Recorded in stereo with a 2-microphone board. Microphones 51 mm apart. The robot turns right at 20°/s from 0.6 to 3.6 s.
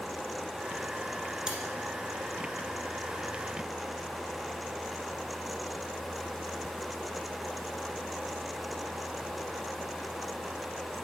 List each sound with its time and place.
1.5 s cutlery clinking: 15° right (ahead or behind), 1.5 m